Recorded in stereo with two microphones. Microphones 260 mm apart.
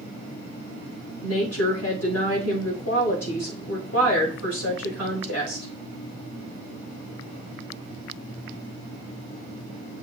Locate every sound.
1.2 s a woman speaking: 70° left (ahead or behind), 4.5 m